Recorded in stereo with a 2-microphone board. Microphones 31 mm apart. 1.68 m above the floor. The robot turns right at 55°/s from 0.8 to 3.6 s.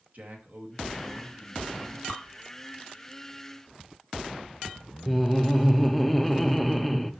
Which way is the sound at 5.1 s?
5° left (ahead or behind).